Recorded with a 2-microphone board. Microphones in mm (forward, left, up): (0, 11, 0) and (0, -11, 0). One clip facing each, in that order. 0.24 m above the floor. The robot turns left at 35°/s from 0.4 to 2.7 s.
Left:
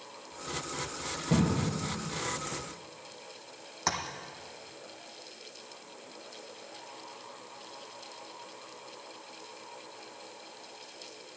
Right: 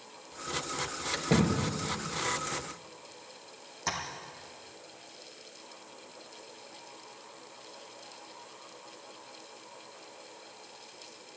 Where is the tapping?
30° left (ahead or behind), 2 m.